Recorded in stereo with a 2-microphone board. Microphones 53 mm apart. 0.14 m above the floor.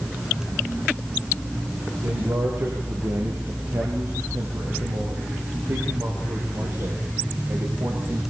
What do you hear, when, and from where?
2.0 s a man speaking: 80° right, 7.5 m; by 8.2 s 70° right (ahead or behind), 8.5 m